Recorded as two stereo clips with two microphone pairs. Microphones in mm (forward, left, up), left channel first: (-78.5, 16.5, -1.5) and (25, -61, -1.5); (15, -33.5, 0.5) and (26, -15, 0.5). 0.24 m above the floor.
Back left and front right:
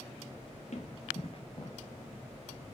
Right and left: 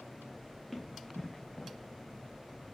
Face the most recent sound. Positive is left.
turn(degrees=-160)